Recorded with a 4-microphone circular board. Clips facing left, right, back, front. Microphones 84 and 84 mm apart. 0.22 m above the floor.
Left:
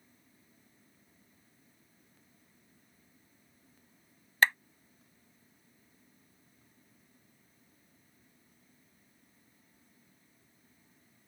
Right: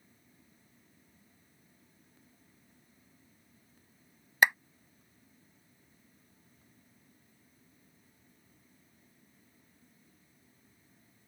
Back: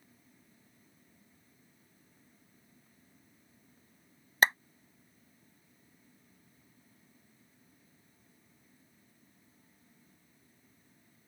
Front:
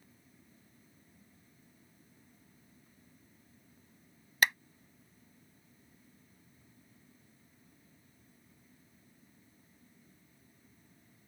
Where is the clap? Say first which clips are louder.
Right 1 dB, back 3 dB; 155° right.